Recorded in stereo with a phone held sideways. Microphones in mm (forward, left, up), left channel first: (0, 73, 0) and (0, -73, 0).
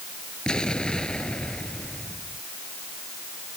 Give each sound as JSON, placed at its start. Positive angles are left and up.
{"t": 0.5, "sound": "an explosion", "side_deg": 5}